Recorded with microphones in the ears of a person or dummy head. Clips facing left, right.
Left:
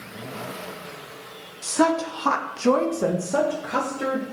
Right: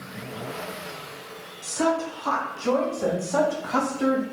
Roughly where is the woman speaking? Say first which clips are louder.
Left 3 dB; left.